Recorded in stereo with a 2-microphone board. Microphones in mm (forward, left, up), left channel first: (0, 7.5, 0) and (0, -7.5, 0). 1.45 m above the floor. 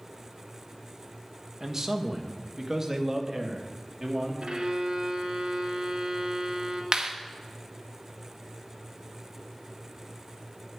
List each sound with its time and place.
1.6 s a man speaking: 30° right (ahead or behind), 1.5 m
4.4 s a violin: 75° right (ahead or behind), 2.0 m
6.9 s a clap: 50° right (ahead or behind), 1.5 m